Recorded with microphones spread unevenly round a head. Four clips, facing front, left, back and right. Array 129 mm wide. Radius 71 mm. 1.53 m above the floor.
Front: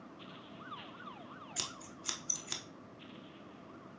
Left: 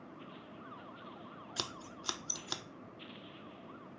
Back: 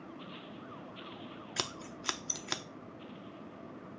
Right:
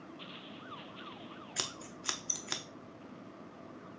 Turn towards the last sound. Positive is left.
turn(degrees=175)